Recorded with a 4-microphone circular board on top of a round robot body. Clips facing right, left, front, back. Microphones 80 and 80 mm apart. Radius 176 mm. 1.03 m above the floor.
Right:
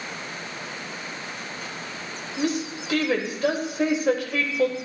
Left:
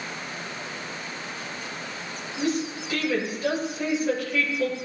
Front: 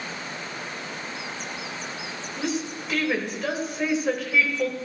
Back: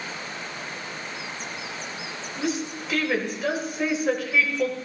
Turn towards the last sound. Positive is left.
turn(degrees=-90)